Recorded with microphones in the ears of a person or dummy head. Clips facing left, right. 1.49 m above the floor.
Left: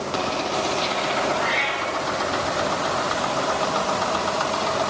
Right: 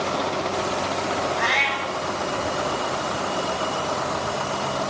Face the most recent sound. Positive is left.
turn(degrees=-75)  # may be behind; listen again after turning